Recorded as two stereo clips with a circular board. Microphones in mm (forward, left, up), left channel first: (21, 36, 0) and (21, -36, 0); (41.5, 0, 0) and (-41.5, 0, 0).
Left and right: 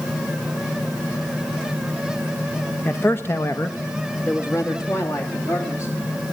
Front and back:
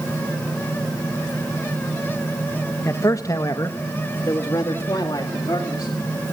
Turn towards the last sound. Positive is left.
turn(degrees=45)